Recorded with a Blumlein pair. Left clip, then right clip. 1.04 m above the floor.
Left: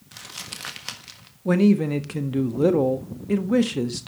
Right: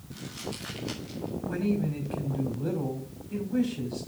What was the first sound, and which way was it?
Crumpling, 30° left.